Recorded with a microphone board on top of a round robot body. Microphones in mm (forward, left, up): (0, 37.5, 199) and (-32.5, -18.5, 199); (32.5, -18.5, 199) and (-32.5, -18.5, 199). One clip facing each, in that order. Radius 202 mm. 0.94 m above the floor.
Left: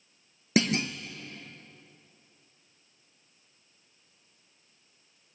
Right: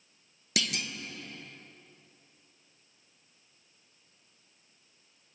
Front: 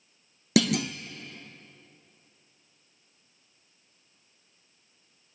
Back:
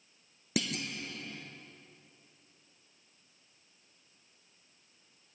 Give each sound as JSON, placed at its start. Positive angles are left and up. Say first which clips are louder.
{"t": 0.6, "sound": "a clunk", "louder": "left 9 dB, front 11 dB", "azimuth_deg": -5, "distance_m": 0.5}